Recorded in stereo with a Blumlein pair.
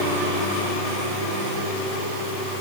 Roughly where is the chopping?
No chopping in this recording.